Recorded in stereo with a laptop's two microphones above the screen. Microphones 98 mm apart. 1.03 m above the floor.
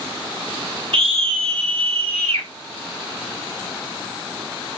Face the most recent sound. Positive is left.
turn(degrees=-75)  # may be behind; listen again after turning